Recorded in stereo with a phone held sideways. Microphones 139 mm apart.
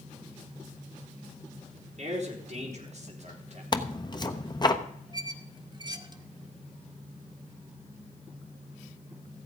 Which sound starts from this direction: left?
Tearing paper, at 3.7 s.